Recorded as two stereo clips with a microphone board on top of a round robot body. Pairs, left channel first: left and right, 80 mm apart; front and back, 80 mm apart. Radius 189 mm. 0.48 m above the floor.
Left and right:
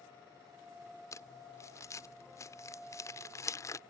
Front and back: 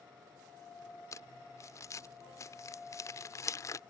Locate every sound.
1.1 s crumpling: 45° left